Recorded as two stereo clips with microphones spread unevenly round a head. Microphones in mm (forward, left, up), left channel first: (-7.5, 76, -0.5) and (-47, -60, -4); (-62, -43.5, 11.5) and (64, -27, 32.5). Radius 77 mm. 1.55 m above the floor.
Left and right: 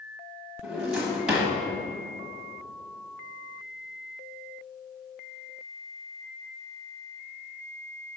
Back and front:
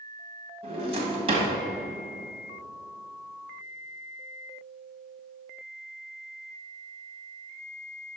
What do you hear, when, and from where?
0.6 s a drawer: 20° right, 1.2 m